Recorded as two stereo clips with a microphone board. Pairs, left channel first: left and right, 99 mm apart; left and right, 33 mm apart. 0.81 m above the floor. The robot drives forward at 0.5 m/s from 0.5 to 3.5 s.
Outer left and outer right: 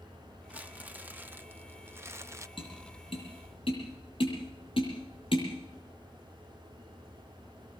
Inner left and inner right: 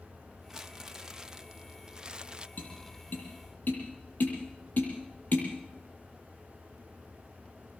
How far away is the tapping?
About 8.5 m.